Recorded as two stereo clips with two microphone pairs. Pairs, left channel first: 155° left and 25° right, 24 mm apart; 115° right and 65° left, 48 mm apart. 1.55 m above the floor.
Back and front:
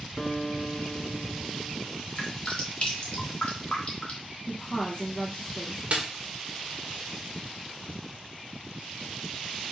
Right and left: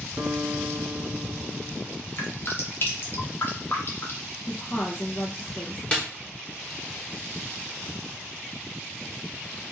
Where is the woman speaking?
165° right, 1.0 m.